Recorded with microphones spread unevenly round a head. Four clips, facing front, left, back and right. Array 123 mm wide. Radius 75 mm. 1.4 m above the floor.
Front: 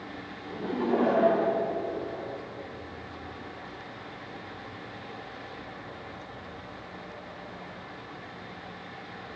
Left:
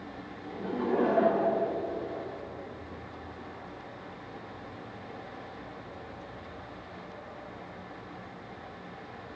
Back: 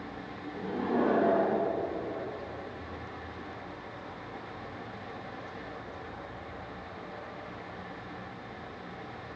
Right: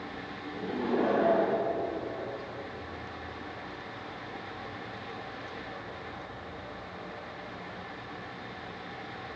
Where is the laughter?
35° left, 3 m; by 2.3 s 40° left, 4 m.